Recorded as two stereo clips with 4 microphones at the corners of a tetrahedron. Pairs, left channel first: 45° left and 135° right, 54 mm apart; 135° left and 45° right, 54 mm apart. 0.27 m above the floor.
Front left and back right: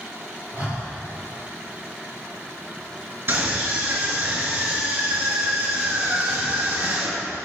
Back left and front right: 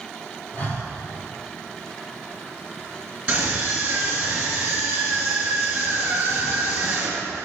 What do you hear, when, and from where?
0.5 s breathing: 160° right, 6 m
3.3 s a scream: 115° right, 3.5 m